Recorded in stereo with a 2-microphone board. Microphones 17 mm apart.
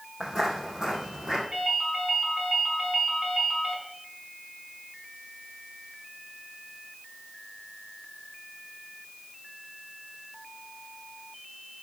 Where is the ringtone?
75° right (ahead or behind), 6 m.